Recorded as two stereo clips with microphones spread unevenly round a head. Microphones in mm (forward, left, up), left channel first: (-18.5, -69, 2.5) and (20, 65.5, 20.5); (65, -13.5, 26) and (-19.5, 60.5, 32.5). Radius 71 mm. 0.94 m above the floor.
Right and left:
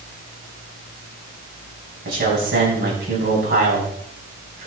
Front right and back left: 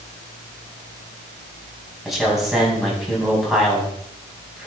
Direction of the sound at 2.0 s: 50° left.